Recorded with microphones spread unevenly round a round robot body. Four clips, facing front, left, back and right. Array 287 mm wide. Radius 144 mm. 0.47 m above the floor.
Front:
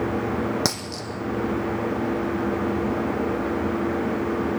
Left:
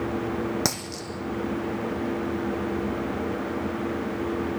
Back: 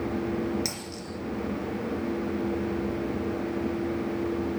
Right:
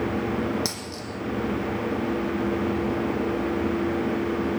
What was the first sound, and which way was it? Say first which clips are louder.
A dropped coin: left 2 dB, front 7 dB; 30° left.